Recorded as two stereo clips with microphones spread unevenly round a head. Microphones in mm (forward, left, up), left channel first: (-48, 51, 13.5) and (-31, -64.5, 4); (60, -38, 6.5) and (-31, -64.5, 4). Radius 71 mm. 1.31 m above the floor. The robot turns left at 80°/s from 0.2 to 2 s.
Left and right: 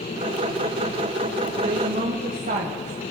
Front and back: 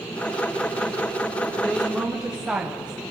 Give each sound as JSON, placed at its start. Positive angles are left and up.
{"t": 1.6, "sound": "a woman speaking", "azimuth_deg": -50, "distance_m": 1.0}